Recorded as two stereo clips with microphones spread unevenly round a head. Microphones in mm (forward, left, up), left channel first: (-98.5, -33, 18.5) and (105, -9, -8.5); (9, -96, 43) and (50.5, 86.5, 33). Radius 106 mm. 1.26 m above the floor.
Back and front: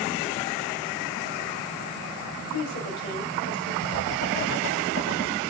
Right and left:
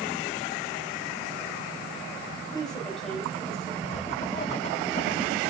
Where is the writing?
160° right, 1.3 m.